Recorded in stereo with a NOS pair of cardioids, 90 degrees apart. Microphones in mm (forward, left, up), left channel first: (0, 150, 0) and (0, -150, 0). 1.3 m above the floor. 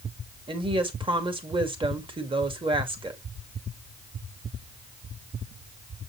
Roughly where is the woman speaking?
Ahead.